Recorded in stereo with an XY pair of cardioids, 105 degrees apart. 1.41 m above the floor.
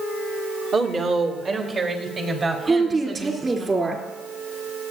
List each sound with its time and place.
0.7 s a woman speaking: 55° right, 1.9 m; by 3.6 s 35° right, 5 m
2.6 s a woman speaking: 30° right, 3 m